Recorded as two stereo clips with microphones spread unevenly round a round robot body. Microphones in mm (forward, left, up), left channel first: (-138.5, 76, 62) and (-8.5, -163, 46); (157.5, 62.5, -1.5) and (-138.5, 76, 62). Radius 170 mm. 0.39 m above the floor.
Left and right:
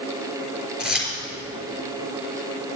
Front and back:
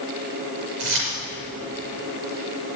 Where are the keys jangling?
150° right, 4.5 m.